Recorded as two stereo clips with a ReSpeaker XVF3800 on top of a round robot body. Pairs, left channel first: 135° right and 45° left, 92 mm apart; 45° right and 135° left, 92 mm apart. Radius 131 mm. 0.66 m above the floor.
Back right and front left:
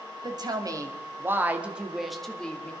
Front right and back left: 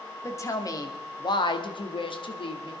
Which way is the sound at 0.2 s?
10° left.